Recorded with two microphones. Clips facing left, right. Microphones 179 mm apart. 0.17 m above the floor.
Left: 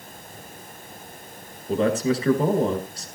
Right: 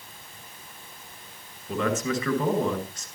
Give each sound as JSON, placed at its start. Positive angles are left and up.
{"t": 1.7, "sound": "a man speaking", "side_deg": 35, "distance_m": 2.0}